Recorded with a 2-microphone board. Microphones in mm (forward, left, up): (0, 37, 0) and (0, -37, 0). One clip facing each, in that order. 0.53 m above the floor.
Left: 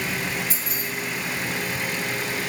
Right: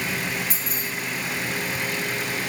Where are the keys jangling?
55° right (ahead or behind), 2.5 m.